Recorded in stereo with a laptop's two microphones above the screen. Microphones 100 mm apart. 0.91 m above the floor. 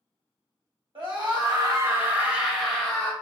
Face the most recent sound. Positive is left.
turn(degrees=15)  # may be behind; listen again after turning